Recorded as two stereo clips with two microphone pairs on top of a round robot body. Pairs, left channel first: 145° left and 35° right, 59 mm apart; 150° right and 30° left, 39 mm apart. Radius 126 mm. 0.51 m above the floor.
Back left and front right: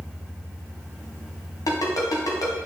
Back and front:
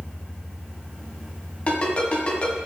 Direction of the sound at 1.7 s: 150° left.